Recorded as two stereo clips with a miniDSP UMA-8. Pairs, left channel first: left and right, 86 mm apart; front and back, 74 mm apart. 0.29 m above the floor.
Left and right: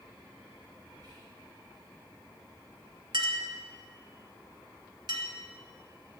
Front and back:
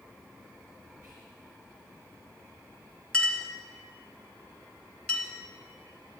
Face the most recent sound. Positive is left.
turn(degrees=-75)